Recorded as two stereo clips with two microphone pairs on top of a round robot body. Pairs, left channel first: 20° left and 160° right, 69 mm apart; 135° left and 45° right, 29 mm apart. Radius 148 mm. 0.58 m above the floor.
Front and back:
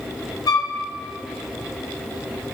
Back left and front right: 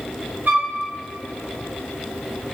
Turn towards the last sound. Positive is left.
turn(degrees=-5)